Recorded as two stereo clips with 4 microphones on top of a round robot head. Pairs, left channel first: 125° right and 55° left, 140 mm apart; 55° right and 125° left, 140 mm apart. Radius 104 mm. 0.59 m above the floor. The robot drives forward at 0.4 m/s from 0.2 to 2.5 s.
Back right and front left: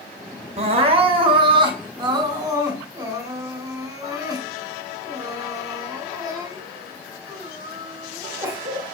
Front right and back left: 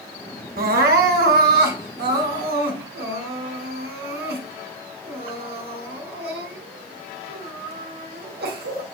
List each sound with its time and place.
0.6 s crying: 105° left, 1.9 m; by 8.8 s 125° left, 2 m